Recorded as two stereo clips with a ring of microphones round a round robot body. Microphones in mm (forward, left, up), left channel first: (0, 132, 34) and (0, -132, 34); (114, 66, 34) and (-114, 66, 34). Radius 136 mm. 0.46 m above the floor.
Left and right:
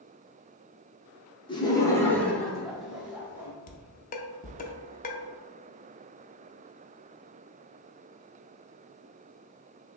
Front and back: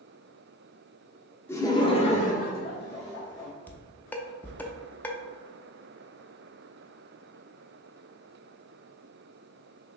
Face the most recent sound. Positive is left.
turn(degrees=75)